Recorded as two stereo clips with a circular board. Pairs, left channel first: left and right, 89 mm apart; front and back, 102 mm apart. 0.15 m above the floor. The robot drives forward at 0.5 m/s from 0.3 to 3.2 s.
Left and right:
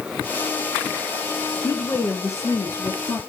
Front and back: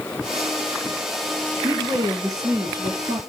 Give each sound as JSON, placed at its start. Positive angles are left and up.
{"t": 1.6, "sound": "a woman speaking", "azimuth_deg": 125, "distance_m": 1.5}